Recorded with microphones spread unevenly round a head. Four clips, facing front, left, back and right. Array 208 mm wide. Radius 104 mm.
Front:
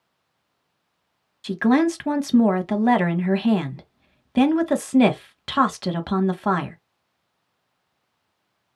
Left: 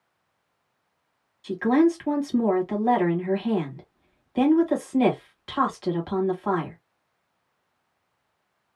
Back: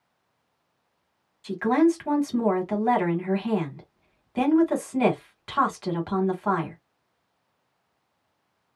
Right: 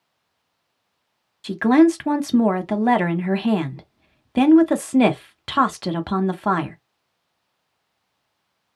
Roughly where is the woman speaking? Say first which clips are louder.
Right 5 dB, front 2 dB; ahead right.